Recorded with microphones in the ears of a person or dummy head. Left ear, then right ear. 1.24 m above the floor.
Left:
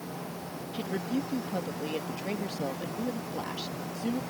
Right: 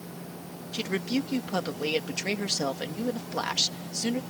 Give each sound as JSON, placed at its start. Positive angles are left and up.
{"t": 0.7, "sound": "a woman speaking", "side_deg": -55}